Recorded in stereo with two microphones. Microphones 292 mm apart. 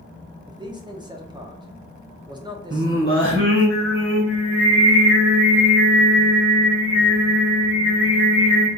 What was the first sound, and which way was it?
A man speaking, 15° right (ahead or behind).